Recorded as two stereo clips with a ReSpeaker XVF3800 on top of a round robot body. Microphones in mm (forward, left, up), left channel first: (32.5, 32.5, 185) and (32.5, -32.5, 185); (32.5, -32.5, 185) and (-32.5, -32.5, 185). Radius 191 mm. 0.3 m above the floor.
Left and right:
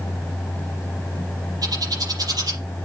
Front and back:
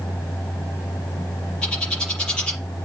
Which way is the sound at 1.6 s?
80° right.